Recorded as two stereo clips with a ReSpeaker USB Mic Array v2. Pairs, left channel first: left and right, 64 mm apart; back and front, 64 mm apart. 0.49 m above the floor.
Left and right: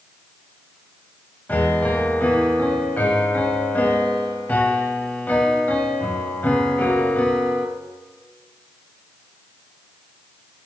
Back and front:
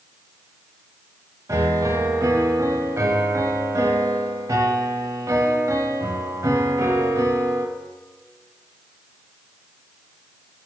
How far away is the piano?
About 1.0 m.